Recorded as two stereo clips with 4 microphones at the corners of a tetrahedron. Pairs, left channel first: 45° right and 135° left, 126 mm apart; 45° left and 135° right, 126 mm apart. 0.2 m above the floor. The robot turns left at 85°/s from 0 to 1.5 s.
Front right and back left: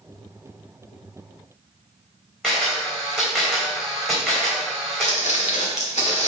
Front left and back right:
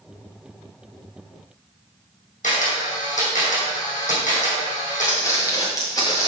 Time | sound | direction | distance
2.4 | a camera shutter | 40° left | 2.5 m
5.0 | footsteps | 20° right | 1.8 m